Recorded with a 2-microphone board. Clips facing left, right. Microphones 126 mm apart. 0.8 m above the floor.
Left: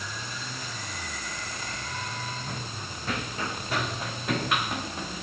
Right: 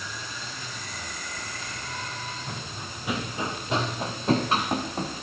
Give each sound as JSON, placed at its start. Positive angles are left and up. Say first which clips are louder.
{"t": 2.5, "sound": "running footsteps", "louder": "even", "side_deg": 0, "distance_m": 3.5}